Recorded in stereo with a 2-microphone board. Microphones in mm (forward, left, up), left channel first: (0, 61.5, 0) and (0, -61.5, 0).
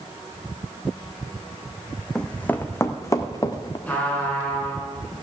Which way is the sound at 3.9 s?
10° left (ahead or behind).